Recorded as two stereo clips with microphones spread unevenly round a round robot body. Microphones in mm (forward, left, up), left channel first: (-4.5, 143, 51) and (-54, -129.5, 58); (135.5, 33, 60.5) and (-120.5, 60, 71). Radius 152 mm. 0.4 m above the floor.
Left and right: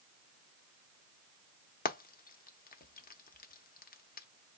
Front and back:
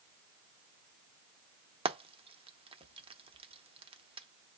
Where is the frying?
115° left, 0.9 m.